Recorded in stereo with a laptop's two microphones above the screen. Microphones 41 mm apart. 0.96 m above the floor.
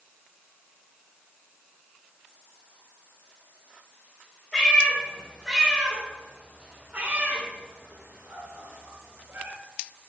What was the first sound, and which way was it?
A cat meowing, 10° left (ahead or behind).